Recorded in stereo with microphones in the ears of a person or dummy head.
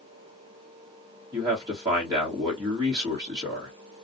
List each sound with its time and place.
1.3 s a man speaking: 20° right (ahead or behind), 1.3 m